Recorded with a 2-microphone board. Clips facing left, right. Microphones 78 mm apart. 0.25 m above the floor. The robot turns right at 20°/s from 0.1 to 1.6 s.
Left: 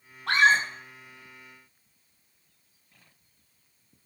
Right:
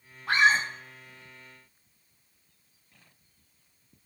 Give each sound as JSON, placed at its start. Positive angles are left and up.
{"t": 0.3, "sound": "a scream", "side_deg": 80, "distance_m": 7.0}